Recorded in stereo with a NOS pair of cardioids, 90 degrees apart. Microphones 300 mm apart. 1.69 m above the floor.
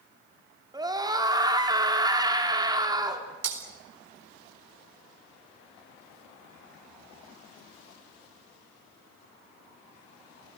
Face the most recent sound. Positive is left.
turn(degrees=-60)